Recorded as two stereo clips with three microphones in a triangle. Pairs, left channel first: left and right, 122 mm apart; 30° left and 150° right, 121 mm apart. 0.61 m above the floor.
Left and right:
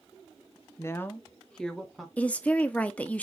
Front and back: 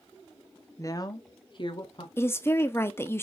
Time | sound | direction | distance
0.8 | a woman speaking | 55° left | 0.7 m
2.2 | a woman speaking | 35° left | 0.6 m